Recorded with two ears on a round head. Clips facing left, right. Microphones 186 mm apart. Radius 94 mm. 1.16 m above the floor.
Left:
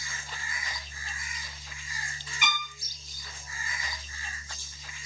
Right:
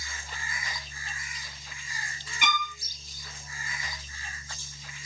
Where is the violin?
50° right (ahead or behind), 1.4 m.